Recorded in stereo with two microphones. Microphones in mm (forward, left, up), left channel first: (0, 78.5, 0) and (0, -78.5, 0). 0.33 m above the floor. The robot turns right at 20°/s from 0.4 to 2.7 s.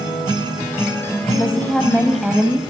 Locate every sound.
1.4 s a woman speaking: 10° left (ahead or behind), 1.7 m; by 2.6 s 10° right (ahead or behind), 1.7 m